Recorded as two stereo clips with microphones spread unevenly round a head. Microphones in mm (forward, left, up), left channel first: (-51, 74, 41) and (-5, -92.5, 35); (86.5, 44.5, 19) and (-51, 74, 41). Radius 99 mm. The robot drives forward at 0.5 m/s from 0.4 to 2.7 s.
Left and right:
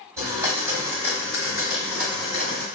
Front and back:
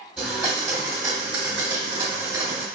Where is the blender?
135° right, 1.3 m; by 2.6 s 165° right, 2.0 m.